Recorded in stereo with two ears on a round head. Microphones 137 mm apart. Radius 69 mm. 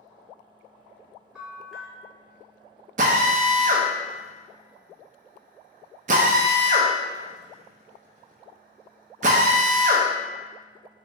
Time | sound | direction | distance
1.4 | a bell | 5° right (ahead or behind) | 0.8 m
3.0 | a drill | 55° right (ahead or behind) | 0.6 m